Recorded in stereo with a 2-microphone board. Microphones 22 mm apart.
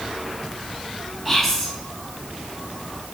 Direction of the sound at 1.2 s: 15° left (ahead or behind).